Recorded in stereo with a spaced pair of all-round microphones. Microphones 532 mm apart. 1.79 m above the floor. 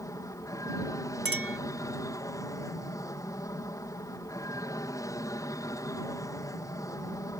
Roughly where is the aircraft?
Centre.